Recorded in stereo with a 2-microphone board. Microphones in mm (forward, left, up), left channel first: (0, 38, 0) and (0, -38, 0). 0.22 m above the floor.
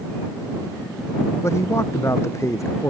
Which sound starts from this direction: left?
A man speaking, at 1.4 s.